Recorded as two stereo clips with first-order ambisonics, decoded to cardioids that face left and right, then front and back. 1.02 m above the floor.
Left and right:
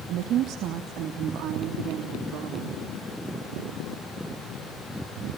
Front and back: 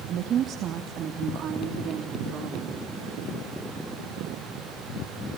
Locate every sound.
0.1 s a woman speaking: 130° right, 1.3 m